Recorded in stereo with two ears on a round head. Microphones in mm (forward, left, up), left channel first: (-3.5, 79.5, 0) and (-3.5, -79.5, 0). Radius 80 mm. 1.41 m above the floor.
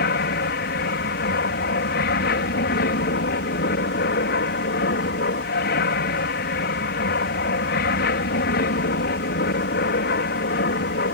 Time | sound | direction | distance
0.0 | an aircraft | 60° left (ahead or behind) | ?